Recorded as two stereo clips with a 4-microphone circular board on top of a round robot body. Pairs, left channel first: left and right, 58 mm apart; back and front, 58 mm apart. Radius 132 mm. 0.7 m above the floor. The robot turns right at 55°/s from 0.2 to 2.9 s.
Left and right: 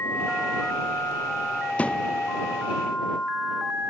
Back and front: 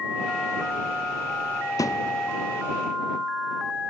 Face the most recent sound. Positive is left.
turn(degrees=-145)